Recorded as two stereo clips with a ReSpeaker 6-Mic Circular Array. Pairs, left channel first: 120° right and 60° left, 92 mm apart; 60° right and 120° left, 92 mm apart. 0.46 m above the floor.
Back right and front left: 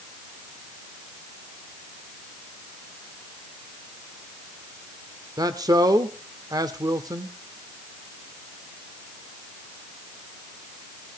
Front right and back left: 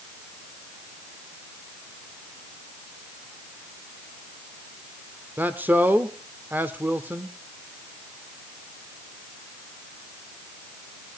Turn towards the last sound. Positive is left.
turn(degrees=60)